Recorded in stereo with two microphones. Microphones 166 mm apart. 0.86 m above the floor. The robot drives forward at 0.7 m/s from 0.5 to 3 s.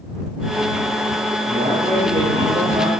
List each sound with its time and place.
1.5 s a man speaking: 60° right (ahead or behind), 5.5 m; by 2.9 s 55° right (ahead or behind), 6 m